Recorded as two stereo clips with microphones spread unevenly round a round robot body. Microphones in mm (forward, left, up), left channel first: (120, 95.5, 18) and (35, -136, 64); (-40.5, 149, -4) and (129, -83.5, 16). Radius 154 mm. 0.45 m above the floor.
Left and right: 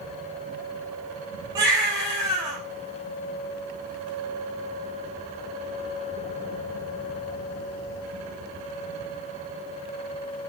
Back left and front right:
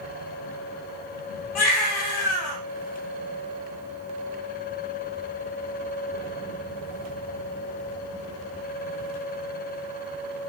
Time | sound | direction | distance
1.6 | a baby crying | 170° left | 5 m